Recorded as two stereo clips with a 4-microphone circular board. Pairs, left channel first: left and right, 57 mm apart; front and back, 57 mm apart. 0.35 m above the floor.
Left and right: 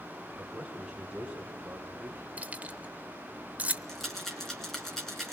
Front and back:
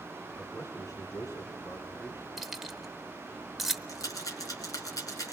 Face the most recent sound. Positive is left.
turn(degrees=5)